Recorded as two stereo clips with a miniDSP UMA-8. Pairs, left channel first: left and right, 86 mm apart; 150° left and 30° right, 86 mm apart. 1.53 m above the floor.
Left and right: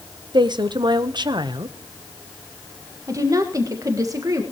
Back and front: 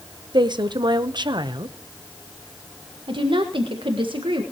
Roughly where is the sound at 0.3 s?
Ahead right.